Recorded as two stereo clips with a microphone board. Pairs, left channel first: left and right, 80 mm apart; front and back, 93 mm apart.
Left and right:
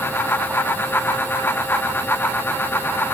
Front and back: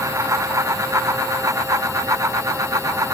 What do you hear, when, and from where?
Only background noise.